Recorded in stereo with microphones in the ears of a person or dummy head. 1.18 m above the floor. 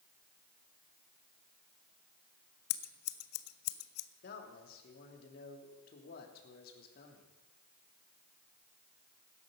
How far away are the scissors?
About 0.7 m.